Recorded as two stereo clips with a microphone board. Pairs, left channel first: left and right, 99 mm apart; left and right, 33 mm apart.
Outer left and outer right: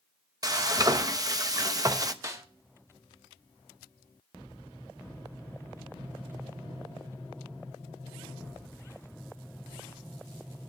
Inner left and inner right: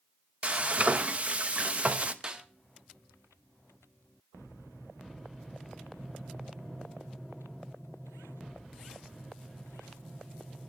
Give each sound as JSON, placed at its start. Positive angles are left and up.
{"t": 0.4, "sound": "frying", "side_deg": -40, "distance_m": 0.9}
{"t": 2.2, "sound": "a snare drum", "side_deg": -35, "distance_m": 1.4}